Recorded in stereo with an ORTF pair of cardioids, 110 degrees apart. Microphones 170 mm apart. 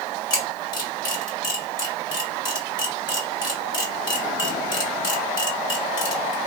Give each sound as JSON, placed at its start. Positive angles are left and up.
{"t": 0.3, "sound": "a camera shutter", "azimuth_deg": 25, "distance_m": 1.6}